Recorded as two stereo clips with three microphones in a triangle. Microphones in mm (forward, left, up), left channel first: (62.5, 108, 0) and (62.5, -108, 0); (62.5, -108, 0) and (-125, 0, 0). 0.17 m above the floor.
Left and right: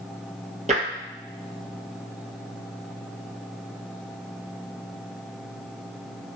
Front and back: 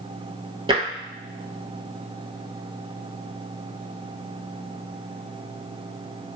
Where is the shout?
No shout in this recording.